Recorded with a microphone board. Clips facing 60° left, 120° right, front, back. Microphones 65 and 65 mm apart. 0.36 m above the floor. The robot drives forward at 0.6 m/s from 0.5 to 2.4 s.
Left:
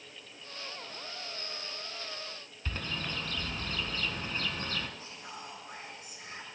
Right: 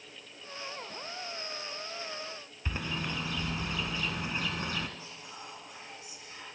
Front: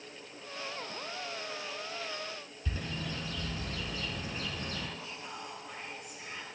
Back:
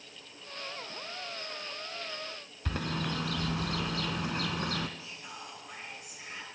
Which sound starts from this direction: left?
Whispering, at 5.0 s.